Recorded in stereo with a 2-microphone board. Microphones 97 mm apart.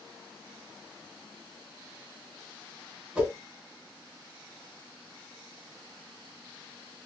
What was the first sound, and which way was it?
A whoosh, 10° right (ahead or behind).